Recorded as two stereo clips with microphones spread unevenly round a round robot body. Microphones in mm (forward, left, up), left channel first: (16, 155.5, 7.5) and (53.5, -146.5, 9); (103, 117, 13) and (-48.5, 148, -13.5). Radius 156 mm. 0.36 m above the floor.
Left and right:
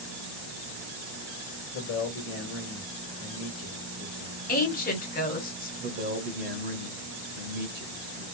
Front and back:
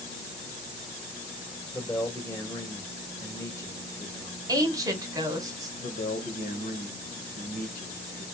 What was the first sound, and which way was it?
A man speaking, 65° left.